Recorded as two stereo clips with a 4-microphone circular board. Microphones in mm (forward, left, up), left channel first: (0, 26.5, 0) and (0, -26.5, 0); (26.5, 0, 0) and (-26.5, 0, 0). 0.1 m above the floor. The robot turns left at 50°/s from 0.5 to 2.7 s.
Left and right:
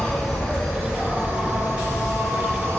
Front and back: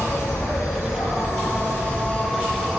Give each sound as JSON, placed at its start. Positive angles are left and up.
{"t": 0.0, "sound": "an insect", "azimuth_deg": 15, "distance_m": 0.9}